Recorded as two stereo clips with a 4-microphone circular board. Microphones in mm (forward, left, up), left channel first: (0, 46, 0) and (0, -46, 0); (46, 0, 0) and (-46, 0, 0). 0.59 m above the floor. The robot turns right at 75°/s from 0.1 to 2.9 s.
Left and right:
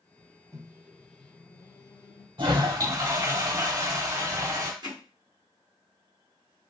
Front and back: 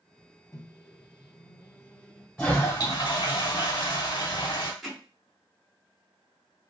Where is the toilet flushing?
80° right, 1.1 m; by 4.7 s 40° right, 1.1 m.